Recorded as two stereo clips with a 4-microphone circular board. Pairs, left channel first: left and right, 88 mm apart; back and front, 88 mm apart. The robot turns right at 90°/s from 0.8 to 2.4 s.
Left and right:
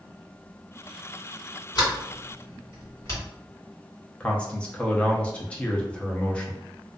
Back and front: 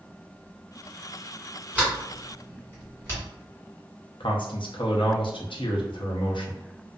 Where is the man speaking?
165° left, 0.6 m.